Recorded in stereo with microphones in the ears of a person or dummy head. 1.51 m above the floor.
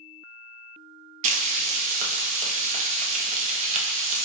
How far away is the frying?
About 0.5 m.